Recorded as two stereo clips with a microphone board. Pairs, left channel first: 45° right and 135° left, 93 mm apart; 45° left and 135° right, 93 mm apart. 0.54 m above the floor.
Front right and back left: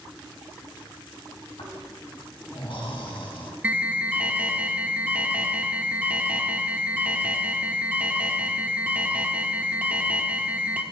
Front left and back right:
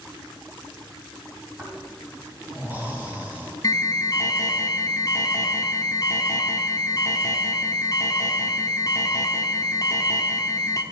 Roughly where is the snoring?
Ahead right.